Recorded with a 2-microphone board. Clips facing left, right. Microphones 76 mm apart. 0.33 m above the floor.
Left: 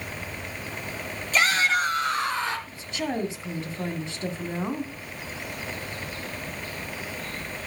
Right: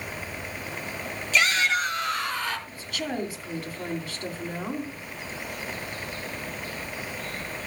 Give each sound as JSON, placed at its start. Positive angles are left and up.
{"t": 1.3, "sound": "a shout", "side_deg": 40, "distance_m": 3.0}
{"t": 2.7, "sound": "a woman speaking", "side_deg": 25, "distance_m": 2.5}